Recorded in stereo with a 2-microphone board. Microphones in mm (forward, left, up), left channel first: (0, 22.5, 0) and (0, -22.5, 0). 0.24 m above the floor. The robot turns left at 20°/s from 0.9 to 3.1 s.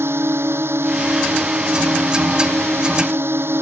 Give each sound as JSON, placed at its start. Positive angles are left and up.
{"t": 0.0, "sound": "a drone", "azimuth_deg": -70}